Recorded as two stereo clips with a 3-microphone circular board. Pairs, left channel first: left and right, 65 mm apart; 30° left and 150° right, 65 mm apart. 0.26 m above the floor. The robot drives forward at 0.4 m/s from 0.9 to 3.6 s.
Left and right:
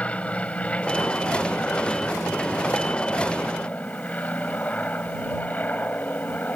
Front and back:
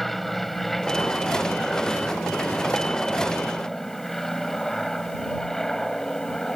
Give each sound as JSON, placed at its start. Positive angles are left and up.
{"t": 0.0, "sound": "an aircraft", "azimuth_deg": 115}